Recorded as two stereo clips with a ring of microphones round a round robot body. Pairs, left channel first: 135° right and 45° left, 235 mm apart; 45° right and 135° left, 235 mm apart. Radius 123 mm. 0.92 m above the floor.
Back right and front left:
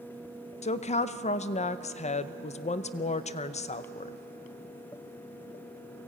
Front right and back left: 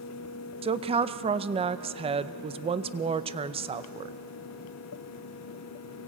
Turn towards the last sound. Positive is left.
turn(degrees=-175)